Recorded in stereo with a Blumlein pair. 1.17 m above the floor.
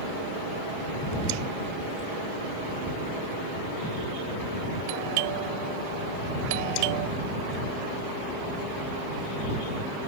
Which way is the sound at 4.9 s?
50° right.